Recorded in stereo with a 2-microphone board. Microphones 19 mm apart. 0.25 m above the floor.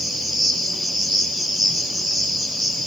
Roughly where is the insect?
Centre.